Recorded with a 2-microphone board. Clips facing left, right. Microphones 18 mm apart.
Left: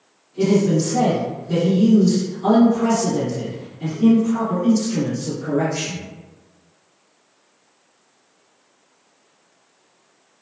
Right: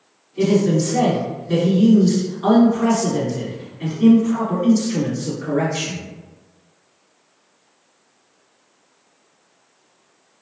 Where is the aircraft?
I don't hear an aircraft.